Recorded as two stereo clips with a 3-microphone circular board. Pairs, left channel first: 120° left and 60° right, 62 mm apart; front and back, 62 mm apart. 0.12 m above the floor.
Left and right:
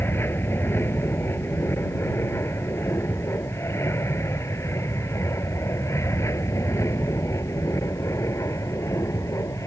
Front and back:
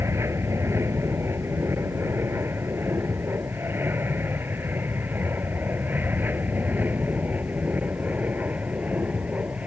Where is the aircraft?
155° left; by 9.7 s 120° left.